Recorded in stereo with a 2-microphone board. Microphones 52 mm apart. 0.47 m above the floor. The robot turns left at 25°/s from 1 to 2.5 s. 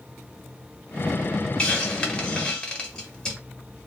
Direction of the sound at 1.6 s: 20° left (ahead or behind).